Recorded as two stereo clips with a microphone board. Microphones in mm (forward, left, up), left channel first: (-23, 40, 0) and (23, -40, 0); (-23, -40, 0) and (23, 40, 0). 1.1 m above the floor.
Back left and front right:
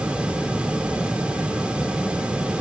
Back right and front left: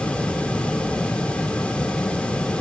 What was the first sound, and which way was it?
Only background noise.